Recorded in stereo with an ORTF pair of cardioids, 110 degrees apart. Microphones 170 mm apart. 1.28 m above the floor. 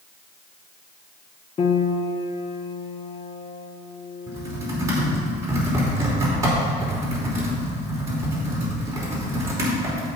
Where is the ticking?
I don't hear ticking.